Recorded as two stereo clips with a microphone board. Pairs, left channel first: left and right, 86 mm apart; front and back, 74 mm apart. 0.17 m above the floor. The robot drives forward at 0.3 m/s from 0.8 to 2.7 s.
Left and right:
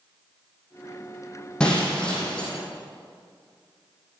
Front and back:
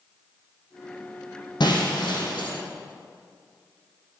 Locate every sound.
1.6 s breaking glass: 10° left, 4 m